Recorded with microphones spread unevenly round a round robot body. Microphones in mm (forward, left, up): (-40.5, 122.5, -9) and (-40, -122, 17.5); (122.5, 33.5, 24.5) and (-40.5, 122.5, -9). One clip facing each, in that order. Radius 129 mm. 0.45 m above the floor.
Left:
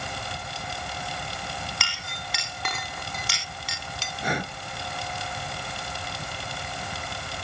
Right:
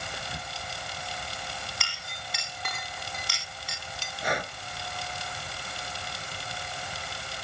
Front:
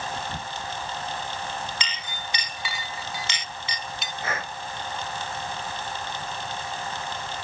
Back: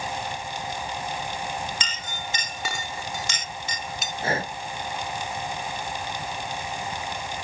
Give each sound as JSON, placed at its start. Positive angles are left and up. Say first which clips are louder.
{"t": 0.1, "sound": "whispering", "louder": "left 3 dB, back 1 dB", "azimuth_deg": -10}
{"t": 1.8, "sound": "a clink", "louder": "left 5 dB, back 1 dB", "azimuth_deg": 110}
{"t": 4.2, "sound": "breathing", "louder": "left 2 dB, back 6 dB", "azimuth_deg": 90}